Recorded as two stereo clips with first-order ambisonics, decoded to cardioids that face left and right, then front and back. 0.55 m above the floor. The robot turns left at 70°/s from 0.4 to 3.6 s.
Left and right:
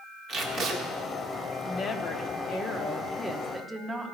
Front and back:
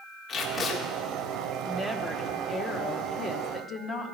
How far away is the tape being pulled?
About 1.7 m.